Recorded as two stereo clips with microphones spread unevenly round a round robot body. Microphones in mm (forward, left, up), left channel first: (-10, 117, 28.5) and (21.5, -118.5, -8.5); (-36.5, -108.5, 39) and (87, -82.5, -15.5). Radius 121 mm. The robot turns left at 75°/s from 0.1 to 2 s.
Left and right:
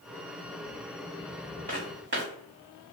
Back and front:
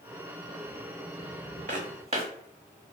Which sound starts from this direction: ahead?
Footsteps, at 1.7 s.